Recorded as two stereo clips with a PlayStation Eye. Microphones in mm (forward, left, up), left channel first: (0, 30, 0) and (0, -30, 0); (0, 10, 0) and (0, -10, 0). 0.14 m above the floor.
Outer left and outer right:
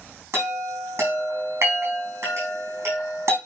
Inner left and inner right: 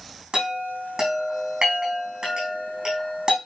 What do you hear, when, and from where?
0.3 s a chime: 50° right (ahead or behind), 4 m